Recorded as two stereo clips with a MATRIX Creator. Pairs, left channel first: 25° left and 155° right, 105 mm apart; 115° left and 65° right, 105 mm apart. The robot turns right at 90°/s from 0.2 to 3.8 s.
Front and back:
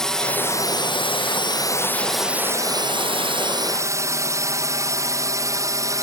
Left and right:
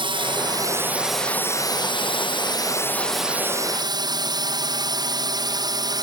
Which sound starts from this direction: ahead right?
A drone, at 0.0 s.